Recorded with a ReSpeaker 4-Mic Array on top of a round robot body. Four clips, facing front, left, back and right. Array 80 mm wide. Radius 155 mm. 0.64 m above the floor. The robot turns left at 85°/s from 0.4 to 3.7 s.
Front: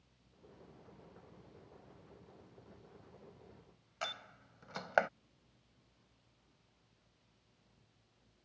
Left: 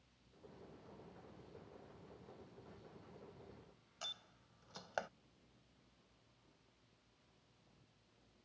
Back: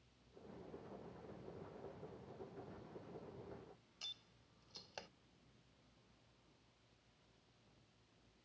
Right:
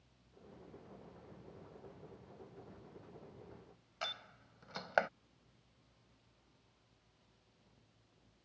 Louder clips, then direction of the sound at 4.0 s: Right 10 dB, front 19 dB; 30° right.